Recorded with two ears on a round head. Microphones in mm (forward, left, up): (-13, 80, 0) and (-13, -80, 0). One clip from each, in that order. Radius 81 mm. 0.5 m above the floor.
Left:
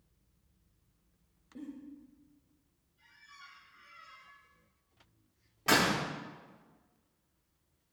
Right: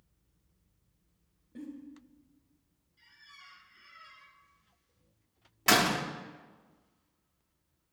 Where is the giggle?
50° right (ahead or behind), 2 m.